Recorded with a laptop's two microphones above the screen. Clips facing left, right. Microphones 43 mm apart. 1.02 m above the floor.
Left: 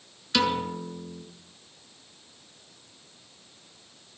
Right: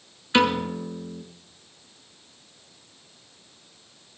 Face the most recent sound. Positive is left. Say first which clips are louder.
# right 4 dB
turn(degrees=-25)  # may be behind; listen again after turning